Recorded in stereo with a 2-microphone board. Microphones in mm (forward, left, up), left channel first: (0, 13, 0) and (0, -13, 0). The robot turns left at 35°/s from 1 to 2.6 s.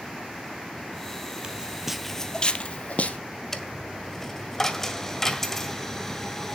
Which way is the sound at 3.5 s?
15° left (ahead or behind).